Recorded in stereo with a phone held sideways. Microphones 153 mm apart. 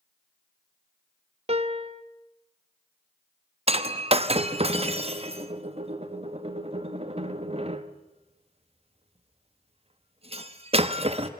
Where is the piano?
40° right (ahead or behind), 0.8 m.